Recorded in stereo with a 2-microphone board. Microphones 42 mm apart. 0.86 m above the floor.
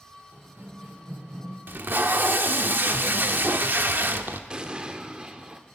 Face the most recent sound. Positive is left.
turn(degrees=-20)  # may be behind; listen again after turning